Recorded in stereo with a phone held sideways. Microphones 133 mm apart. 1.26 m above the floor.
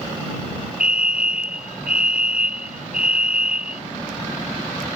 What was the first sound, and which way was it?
A fire alarm, 5° right (ahead or behind).